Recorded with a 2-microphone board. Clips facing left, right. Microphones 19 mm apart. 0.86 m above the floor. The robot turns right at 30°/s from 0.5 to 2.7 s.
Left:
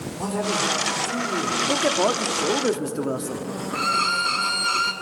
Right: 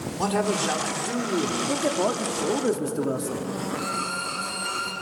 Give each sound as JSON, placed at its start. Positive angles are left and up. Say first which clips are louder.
{"t": 0.2, "sound": "a man speaking", "louder": "even", "azimuth_deg": -115, "distance_m": 3.0}
{"t": 1.7, "sound": "a man speaking", "louder": "left 5 dB", "azimuth_deg": 130, "distance_m": 1.5}
{"t": 3.7, "sound": "a violin", "louder": "left 10 dB", "side_deg": 50, "distance_m": 1.0}